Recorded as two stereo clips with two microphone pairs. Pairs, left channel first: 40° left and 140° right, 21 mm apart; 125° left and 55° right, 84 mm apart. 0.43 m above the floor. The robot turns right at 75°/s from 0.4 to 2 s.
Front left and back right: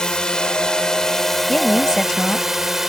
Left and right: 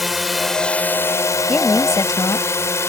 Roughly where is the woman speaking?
Ahead left.